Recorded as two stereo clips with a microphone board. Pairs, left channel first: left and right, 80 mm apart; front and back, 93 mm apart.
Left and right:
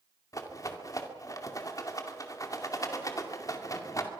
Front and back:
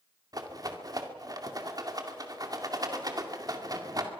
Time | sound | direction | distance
0.3 | a rattle | 135° left | 2 m